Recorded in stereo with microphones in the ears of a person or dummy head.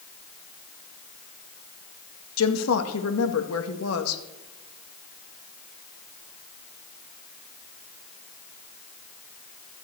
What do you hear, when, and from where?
2.4 s a woman speaking: 70° left (ahead or behind), 1.9 m